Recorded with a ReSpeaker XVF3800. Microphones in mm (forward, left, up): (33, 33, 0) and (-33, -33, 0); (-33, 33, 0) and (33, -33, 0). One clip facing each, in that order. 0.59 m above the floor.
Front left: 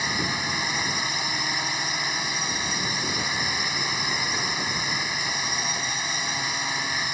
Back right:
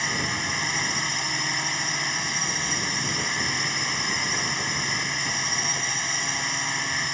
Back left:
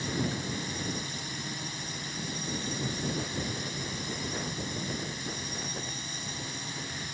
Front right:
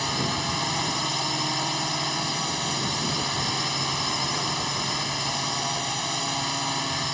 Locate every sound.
0.0 s a drone: 40° right